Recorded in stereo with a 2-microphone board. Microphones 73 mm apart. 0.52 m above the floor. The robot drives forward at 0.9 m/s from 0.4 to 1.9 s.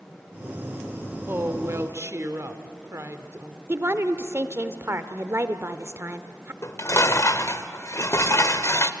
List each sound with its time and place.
1.3 s a woman speaking: 35° right (ahead or behind), 2.0 m; by 3.6 s 40° right (ahead or behind), 1.6 m
3.7 s a woman speaking: 35° right (ahead or behind), 1.2 m
6.6 s dishes clattering: 40° left (ahead or behind), 1.0 m